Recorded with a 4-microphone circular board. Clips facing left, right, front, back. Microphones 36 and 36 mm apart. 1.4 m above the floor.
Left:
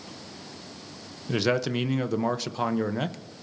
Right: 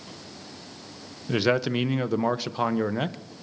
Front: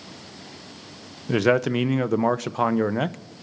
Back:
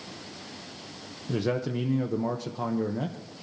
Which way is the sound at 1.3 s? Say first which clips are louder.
Right 2 dB, front 8 dB; 10° right.